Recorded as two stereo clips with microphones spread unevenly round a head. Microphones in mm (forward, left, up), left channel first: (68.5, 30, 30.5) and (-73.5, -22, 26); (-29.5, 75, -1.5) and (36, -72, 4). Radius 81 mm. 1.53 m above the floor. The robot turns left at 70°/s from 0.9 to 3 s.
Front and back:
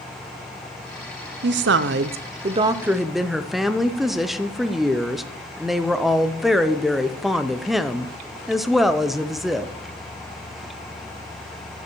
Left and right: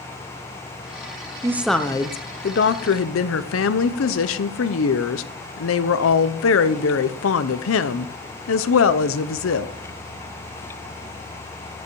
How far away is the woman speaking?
About 0.6 m.